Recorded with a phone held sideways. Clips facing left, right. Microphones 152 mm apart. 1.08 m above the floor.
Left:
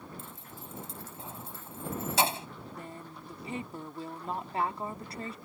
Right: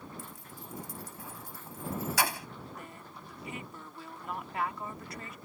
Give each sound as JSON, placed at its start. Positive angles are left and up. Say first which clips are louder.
{"t": 0.2, "sound": "keys jangling", "louder": "even", "side_deg": 25}
{"t": 2.7, "sound": "a woman speaking", "louder": "left 3 dB", "side_deg": 30}